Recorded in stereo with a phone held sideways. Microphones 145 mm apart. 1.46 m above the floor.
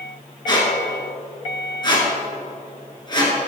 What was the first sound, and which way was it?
A squeak, 30° left (ahead or behind).